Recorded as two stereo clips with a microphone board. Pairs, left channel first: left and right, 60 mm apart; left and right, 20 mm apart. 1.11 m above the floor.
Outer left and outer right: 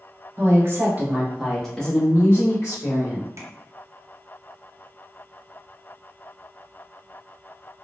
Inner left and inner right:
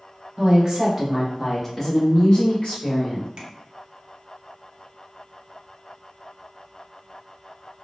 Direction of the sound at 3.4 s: 50° right (ahead or behind).